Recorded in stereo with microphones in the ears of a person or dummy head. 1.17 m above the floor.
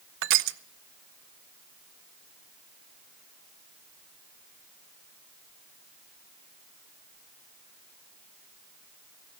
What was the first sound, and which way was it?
Crushing, 65° right (ahead or behind).